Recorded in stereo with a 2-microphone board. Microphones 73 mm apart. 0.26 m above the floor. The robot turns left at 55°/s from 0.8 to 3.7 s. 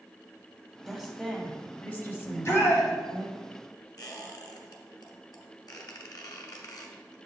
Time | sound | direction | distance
0.9 | a woman speaking | 175° right | 1.3 m
2.2 | a shout | 125° left | 2.0 m
4.0 | a squeak | 70° left (ahead or behind) | 1.1 m